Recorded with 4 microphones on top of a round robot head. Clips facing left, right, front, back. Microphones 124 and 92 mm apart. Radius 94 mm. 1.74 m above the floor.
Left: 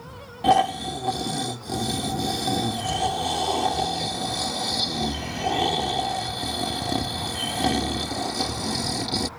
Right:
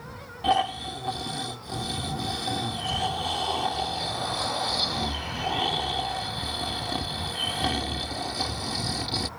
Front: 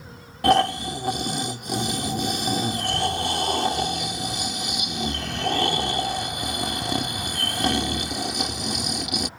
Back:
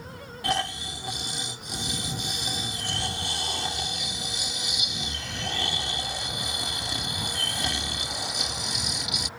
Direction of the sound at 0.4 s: 35° left.